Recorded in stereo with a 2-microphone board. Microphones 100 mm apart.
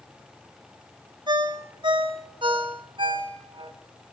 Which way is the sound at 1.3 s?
55° right (ahead or behind).